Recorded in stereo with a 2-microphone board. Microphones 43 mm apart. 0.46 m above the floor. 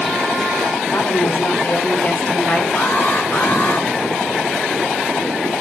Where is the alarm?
45° left (ahead or behind), 4.5 m.